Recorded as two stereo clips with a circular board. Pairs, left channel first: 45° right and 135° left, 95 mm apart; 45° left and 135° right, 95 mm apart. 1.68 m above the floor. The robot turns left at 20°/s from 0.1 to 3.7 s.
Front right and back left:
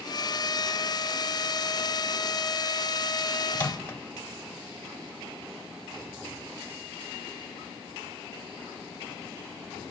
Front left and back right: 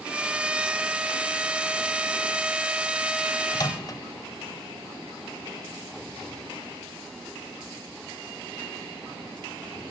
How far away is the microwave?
About 0.7 m.